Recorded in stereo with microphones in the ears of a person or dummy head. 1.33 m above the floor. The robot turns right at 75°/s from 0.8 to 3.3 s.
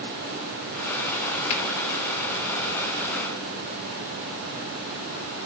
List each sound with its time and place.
1.5 s a finger snap: 30° left (ahead or behind), 2 m; by 1.6 s 40° left (ahead or behind), 2 m